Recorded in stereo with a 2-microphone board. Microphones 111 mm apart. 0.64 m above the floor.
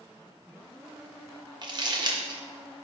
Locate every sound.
1.6 s crumpling: 40° right (ahead or behind), 0.7 m